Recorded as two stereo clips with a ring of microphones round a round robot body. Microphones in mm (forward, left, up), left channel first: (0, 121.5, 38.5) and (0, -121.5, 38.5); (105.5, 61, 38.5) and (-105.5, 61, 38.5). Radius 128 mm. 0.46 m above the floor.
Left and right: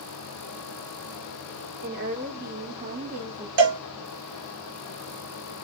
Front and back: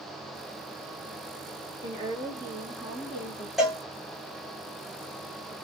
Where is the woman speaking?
120° right, 1.9 m; by 3.5 s 55° right, 1.4 m.